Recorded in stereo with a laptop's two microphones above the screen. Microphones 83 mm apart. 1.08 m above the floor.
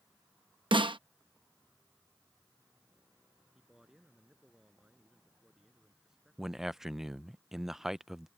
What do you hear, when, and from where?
0.7 s a snare drum: 75° right (ahead or behind)
3.5 s a man speaking: 5° right (ahead or behind)
6.4 s a man speaking: 5° right (ahead or behind)